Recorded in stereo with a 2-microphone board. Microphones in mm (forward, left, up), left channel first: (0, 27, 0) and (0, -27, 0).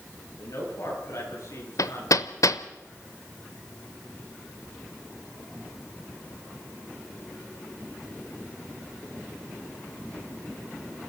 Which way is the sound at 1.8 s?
75° left (ahead or behind).